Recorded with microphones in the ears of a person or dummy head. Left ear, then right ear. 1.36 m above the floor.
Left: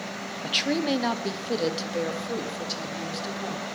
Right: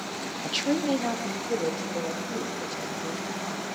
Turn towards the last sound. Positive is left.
turn(degrees=65)  # may be behind; listen again after turning